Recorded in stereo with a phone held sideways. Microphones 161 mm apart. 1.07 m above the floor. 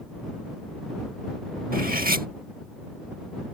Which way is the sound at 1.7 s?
65° right (ahead or behind).